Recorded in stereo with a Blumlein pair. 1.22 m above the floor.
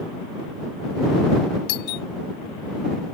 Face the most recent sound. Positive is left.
turn(degrees=45)